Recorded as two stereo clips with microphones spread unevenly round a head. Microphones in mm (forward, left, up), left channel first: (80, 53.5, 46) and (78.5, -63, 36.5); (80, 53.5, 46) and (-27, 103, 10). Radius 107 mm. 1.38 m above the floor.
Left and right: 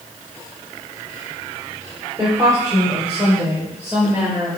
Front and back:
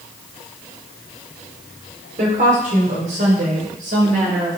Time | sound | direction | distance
2.2 | a woman speaking | 165° right | 4 m